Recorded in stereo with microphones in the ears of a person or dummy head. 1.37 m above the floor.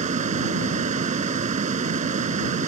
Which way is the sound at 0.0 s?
45° right (ahead or behind).